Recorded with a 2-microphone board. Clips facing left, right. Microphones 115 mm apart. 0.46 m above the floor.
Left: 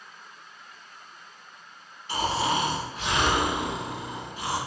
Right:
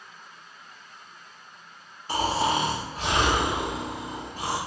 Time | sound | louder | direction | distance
2.1 | snoring | right 2 dB | 40° right (ahead or behind) | 0.8 m